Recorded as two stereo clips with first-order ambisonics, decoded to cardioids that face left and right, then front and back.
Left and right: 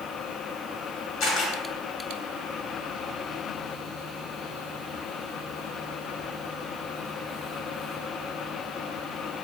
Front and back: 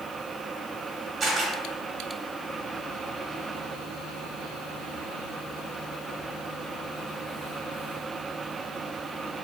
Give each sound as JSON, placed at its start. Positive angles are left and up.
{"t": 1.2, "sound": "a camera shutter", "azimuth_deg": 110, "distance_m": 1.3}